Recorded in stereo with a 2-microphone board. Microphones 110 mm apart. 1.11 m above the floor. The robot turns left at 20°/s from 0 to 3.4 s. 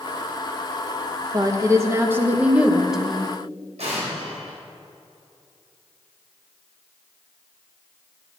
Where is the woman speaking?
145° right, 1.0 m; by 3.3 s 175° left, 1.0 m.